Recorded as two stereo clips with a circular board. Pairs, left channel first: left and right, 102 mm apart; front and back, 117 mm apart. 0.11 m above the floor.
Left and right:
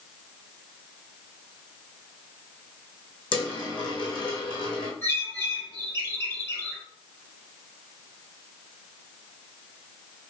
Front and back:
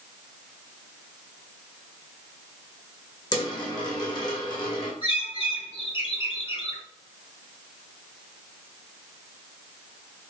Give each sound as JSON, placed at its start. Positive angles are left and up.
{"t": 3.3, "sound": "a dropped coin", "azimuth_deg": 50, "distance_m": 2.0}
{"t": 5.0, "sound": "a bird", "azimuth_deg": 35, "distance_m": 2.0}